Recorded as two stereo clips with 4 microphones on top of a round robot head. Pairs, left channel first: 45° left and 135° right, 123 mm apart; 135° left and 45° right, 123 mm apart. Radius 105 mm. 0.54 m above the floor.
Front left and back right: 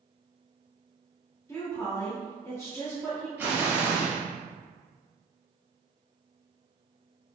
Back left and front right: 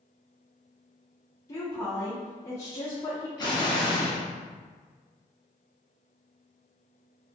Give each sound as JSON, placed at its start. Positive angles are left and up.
{"t": 1.5, "sound": "a woman speaking", "azimuth_deg": 95, "distance_m": 1.1}
{"t": 3.4, "sound": "an explosion", "azimuth_deg": 155, "distance_m": 1.5}